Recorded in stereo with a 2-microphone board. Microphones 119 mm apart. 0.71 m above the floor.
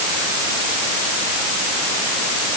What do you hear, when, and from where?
Only background noise.